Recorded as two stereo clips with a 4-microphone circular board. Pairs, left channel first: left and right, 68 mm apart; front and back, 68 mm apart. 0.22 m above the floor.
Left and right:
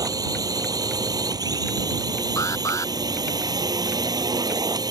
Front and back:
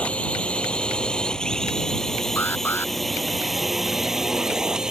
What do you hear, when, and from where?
0.0 s a drone: 70° right; by 4.9 s 100° right
2.4 s an alarm: 55° left